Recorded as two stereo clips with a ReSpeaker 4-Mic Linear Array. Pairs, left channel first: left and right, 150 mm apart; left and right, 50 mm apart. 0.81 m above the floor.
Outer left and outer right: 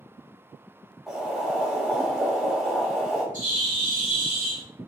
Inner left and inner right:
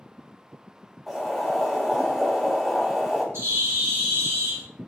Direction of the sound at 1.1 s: Centre (ahead or behind).